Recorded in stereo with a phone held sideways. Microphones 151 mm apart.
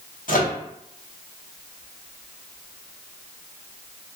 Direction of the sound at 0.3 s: 65° left (ahead or behind).